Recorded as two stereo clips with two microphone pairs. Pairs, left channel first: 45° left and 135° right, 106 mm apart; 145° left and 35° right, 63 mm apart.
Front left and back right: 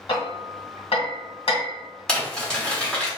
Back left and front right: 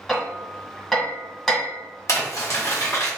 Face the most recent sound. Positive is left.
turn(degrees=125)